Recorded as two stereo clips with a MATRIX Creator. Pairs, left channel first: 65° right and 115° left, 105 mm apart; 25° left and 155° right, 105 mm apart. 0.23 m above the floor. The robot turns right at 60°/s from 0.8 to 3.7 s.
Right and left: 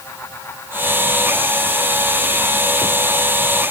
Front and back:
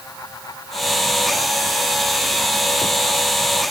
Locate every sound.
Only background noise.